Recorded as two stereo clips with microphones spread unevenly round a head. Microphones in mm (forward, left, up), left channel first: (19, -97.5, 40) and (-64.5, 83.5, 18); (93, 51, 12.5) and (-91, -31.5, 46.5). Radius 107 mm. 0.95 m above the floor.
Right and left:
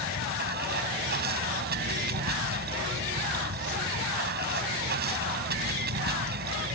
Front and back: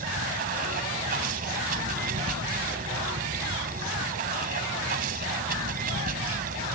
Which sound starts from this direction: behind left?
Running water, at 0.0 s.